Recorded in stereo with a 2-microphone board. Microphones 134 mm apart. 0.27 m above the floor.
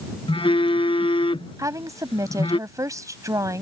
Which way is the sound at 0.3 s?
45° left (ahead or behind).